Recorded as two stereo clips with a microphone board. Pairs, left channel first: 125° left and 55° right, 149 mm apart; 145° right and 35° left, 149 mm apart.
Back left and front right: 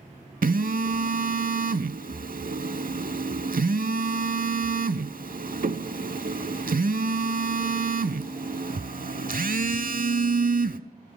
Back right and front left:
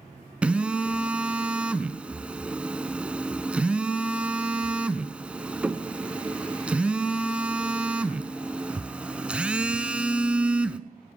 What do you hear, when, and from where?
0.4 s a phone buzzing: 50° right, 0.5 m